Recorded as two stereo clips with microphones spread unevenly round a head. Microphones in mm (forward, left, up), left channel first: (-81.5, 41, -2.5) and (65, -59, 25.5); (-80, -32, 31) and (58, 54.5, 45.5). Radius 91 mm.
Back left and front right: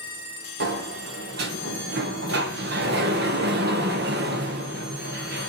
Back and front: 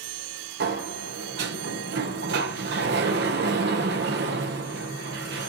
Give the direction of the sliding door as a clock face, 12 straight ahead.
12 o'clock.